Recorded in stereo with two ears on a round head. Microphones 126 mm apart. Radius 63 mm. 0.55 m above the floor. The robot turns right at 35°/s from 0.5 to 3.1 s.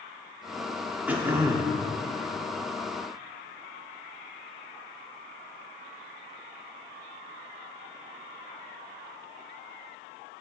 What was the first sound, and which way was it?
Throat clearing, 10° right (ahead or behind).